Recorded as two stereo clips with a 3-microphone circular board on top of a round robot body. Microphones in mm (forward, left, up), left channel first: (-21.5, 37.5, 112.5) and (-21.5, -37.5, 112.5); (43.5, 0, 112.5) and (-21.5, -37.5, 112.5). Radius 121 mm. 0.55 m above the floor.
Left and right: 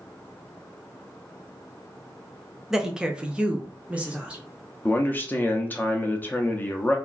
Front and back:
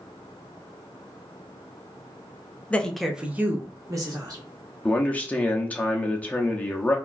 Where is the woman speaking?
15° right, 0.7 m; by 4.4 s 165° right, 1.1 m.